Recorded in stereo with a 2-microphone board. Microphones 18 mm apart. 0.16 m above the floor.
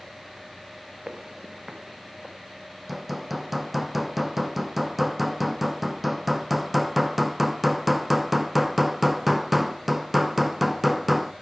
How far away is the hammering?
About 0.5 m.